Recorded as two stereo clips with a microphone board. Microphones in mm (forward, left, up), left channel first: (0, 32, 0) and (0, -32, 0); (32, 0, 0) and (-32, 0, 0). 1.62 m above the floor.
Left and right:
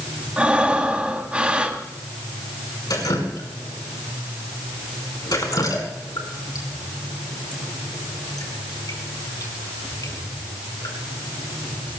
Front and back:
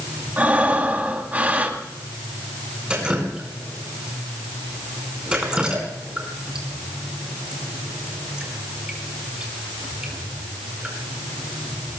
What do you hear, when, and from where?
0.4 s breathing: 140° right, 1.7 m
2.9 s dripping: 105° left, 5 m